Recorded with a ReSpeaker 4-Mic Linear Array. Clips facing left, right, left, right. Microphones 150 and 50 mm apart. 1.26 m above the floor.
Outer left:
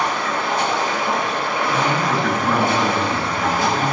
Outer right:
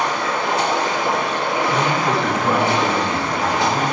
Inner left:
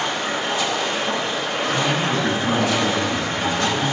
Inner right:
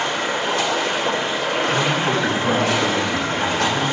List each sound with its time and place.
0.0 s running water: 85° right, 3.5 m
1.7 s a man speaking: 75° right (ahead or behind), 5.5 m